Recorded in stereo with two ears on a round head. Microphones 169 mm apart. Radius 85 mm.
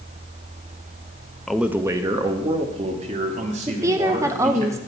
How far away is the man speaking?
About 0.6 m.